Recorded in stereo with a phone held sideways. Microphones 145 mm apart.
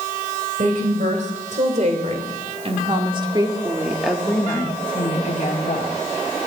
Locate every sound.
0.6 s a woman speaking: 65° right (ahead or behind), 3.5 m; by 5.9 s 60° left (ahead or behind), 2.0 m